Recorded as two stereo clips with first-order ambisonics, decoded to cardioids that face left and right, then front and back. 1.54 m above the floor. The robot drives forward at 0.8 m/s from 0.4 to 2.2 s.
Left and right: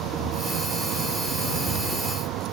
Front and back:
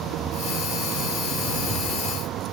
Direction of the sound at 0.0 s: 130° right.